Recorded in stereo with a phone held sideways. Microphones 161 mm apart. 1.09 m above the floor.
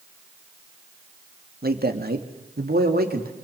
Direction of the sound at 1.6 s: 75° right (ahead or behind).